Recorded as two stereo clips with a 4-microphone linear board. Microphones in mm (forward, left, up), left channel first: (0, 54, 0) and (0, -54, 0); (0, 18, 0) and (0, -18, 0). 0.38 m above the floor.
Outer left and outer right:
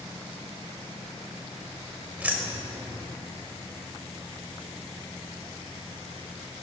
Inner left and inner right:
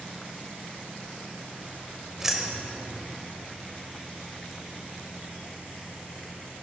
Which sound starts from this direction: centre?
Keys jangling, at 2.2 s.